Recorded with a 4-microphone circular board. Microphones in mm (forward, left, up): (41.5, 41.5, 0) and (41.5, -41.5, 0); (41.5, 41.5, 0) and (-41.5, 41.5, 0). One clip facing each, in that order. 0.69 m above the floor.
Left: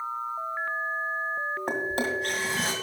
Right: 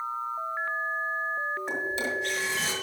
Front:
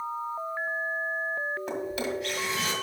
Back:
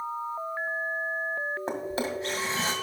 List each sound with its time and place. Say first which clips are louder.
1.7 s a drawer: left 2 dB, even; 125° left, 1.9 m